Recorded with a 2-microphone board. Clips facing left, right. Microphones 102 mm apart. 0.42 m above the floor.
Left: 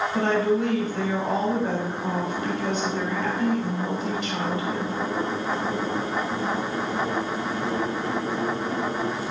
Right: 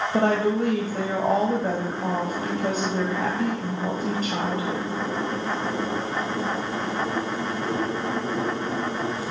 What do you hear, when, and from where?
0.1 s a woman speaking: 50° right (ahead or behind), 2.5 m